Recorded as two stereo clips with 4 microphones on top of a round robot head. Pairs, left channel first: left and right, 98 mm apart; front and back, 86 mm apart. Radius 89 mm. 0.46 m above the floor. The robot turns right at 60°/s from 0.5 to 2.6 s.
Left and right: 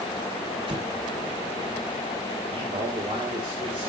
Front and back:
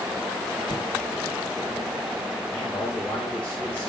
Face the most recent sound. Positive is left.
turn(degrees=-75)